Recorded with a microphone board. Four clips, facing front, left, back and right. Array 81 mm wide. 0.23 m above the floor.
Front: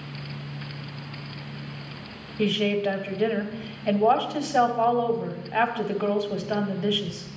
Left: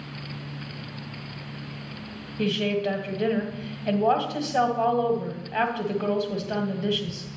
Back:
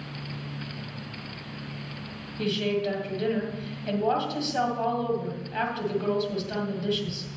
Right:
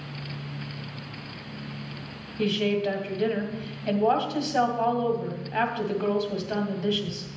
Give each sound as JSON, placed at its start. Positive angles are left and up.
{"t": 2.4, "sound": "a woman speaking", "azimuth_deg": 5, "distance_m": 1.0}